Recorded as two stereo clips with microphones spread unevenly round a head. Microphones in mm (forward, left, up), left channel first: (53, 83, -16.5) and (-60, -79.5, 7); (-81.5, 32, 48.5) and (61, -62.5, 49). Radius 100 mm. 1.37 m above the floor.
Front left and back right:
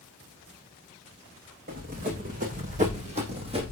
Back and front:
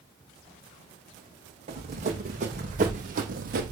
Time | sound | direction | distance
1.7 | running footsteps | 85° right | 5 m